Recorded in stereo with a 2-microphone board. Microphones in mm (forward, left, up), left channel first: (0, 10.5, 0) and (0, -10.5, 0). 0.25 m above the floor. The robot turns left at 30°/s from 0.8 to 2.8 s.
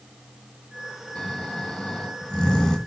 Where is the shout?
I don't hear a shout.